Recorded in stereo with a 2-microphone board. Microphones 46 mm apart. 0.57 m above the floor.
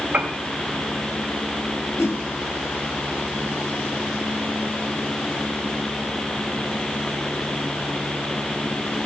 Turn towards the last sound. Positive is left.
turn(degrees=75)  # may be behind; listen again after turning